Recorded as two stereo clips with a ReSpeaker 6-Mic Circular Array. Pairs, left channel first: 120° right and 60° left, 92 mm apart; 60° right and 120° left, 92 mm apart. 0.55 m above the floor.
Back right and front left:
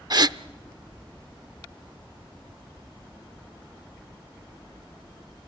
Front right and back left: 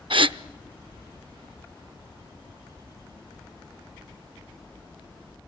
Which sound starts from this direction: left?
A gasp, at 0.1 s.